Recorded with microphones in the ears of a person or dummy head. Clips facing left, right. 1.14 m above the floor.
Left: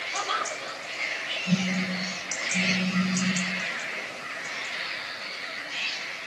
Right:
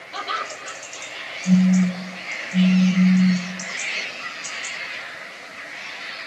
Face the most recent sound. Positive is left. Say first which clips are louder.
# right 11 dB
turn(degrees=-50)  # may be behind; listen again after turning